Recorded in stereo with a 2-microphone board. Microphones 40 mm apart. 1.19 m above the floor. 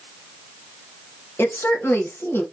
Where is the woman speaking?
80° left, 1.4 m.